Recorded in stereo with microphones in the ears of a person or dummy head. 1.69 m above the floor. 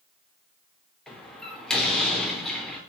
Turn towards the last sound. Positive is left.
turn(degrees=0)  # may be behind; listen again after turning